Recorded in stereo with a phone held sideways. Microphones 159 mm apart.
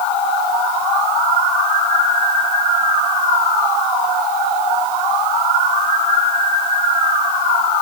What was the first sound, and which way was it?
Only background noise.